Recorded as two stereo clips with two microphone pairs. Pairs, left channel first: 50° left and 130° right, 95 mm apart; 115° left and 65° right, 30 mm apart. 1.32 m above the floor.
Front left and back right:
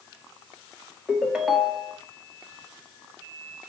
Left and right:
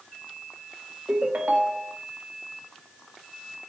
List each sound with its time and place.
1.1 s a ringtone: 45° right, 1.8 m